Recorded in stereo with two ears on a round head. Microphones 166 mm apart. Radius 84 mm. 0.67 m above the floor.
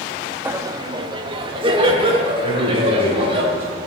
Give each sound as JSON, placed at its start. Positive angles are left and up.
{"t": 0.5, "sound": "laughter", "side_deg": -10, "distance_m": 0.6}
{"t": 2.4, "sound": "a man speaking", "side_deg": -35, "distance_m": 4.0}